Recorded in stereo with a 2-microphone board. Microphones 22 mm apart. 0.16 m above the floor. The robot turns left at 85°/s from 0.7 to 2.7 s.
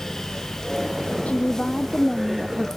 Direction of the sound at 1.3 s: 85° left.